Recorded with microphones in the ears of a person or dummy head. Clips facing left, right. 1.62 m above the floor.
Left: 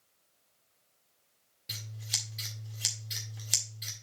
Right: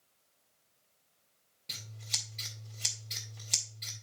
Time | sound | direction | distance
1.7 | scissors | 10° left (ahead or behind) | 1.8 m